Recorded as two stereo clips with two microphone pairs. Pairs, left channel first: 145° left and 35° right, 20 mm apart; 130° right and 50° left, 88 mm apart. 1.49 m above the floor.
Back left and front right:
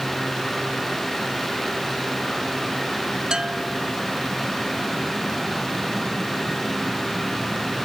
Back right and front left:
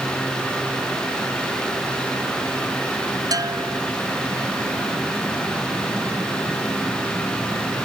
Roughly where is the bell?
Ahead.